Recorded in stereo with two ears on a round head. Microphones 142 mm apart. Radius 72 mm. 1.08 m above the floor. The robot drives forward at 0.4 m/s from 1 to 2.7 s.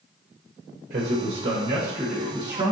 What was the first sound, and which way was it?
A man speaking, 50° right (ahead or behind).